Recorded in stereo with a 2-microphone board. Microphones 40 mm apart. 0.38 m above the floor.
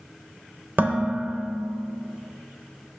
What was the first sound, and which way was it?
Dishes clattering, 50° right (ahead or behind).